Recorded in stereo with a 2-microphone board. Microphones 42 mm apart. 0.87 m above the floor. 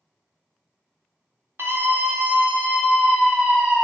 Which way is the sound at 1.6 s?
75° right (ahead or behind).